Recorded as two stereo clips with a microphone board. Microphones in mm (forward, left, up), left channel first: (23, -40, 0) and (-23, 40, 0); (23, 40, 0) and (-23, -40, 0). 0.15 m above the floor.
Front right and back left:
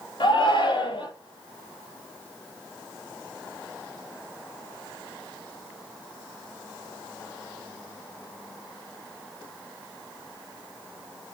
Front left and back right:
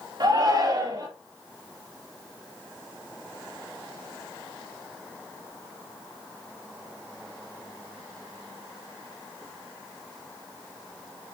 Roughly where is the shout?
Right.